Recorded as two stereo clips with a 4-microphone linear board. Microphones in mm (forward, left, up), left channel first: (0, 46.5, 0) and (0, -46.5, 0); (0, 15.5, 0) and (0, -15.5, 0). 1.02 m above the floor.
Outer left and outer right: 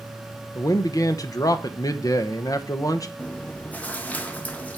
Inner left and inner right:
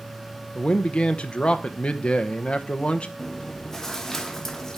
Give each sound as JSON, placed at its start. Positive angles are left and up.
{"t": 0.6, "sound": "a man speaking", "side_deg": 40, "distance_m": 0.8}
{"t": 3.2, "sound": "chewing", "side_deg": 15, "distance_m": 1.0}